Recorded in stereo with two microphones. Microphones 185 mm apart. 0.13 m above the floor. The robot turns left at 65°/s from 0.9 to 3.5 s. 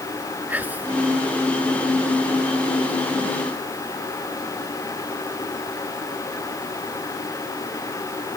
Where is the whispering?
10° right (ahead or behind).